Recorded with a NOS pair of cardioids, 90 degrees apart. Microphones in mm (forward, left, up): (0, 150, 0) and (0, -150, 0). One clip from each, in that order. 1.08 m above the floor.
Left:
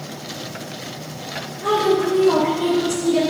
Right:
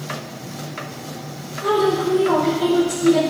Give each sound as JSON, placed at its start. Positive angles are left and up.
{"t": 1.6, "sound": "a woman speaking", "azimuth_deg": -10, "distance_m": 4.0}